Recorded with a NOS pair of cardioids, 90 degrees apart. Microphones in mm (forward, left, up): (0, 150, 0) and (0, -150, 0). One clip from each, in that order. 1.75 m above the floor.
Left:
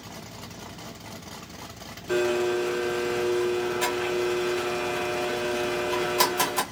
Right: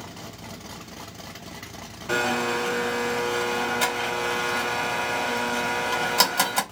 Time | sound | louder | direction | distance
2.1 | a blender | right 1 dB | 55° right | 1.6 m